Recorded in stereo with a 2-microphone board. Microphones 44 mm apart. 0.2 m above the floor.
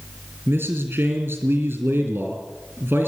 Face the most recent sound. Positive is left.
turn(degrees=-65)  # may be behind; listen again after turning